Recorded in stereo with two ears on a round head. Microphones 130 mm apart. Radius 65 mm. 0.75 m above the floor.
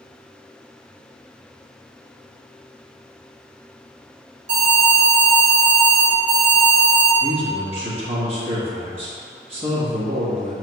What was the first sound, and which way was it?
An alarm, 55° right (ahead or behind).